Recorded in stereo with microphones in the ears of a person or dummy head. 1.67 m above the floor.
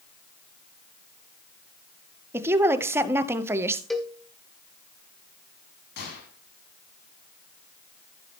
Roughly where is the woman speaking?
Centre.